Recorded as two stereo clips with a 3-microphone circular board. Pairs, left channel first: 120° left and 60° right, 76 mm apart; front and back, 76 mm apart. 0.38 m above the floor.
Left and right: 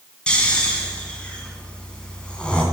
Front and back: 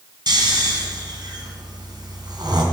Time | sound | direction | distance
0.3 | snoring | 165° right | 2 m